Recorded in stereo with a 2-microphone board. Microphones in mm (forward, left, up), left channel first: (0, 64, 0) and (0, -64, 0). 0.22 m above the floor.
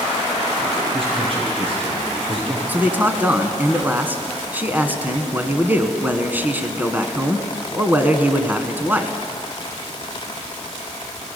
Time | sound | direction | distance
0.9 | a man speaking | 45° right (ahead or behind) | 7 m
2.7 | a man speaking | 15° right (ahead or behind) | 1.9 m